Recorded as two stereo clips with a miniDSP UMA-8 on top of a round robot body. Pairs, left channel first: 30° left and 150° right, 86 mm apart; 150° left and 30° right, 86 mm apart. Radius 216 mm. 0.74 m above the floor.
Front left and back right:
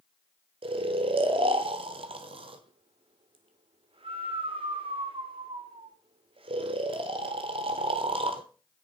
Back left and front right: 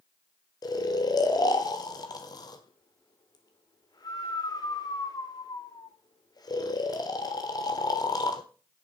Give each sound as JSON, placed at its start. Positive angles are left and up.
{"t": 0.6, "sound": "snoring", "azimuth_deg": -165, "distance_m": 1.0}